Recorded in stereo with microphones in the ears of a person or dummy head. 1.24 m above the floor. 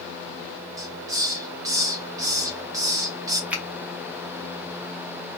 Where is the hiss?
10° right (ahead or behind), 0.6 m.